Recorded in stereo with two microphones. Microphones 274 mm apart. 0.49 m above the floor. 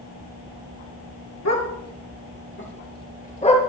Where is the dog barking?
80° left, 3.5 m; by 3.6 s 20° left (ahead or behind), 3.5 m.